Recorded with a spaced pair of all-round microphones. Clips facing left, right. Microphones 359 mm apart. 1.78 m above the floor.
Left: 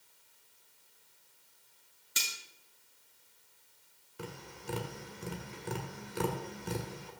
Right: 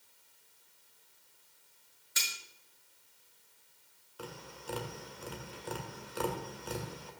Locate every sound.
2.2 s cutlery clinking: 45° left (ahead or behind), 2 m
4.2 s tapping: 35° left (ahead or behind), 1.8 m